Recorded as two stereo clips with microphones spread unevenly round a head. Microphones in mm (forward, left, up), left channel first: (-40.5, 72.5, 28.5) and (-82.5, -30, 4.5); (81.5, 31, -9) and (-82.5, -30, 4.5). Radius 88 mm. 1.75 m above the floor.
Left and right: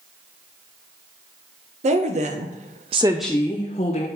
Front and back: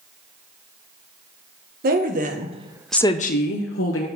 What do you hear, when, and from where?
1.8 s a woman speaking: 125° right, 1.8 m; by 4.1 s 30° left, 1.6 m